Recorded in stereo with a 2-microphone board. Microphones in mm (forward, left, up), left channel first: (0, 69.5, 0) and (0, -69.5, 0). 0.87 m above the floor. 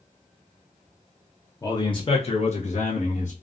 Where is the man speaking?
25° left (ahead or behind), 0.6 m; by 3.3 s 60° left (ahead or behind), 1.2 m.